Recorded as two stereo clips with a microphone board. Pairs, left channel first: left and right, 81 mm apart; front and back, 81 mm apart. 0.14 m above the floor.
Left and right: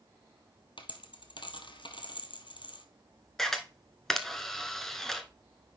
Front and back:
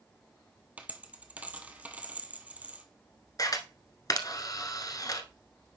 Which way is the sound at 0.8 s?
110° left.